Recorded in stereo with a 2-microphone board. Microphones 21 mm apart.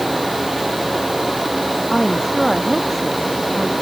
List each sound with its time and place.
1.9 s a woman speaking: 5° left (ahead or behind); by 3.7 s centre (ahead or behind)